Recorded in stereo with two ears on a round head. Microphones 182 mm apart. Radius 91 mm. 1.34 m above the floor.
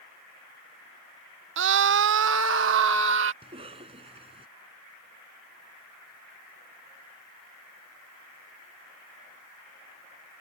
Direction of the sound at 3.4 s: 30° right (ahead or behind).